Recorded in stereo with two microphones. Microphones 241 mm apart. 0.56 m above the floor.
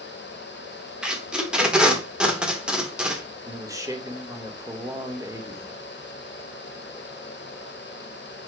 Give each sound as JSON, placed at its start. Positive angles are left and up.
{"t": 1.0, "sound": "tape being pulled", "side_deg": -5, "distance_m": 1.4}
{"t": 3.5, "sound": "a man speaking", "side_deg": -15, "distance_m": 1.4}